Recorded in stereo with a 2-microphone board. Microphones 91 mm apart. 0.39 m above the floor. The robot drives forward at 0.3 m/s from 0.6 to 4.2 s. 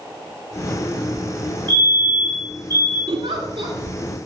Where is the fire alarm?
55° right (ahead or behind), 7 m; by 3.0 s 50° right (ahead or behind), 7 m.